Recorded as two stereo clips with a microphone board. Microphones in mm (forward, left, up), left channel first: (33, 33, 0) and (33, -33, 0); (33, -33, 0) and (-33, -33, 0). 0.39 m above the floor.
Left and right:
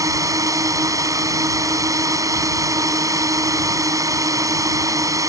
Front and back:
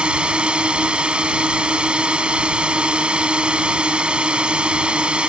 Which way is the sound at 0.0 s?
105° right.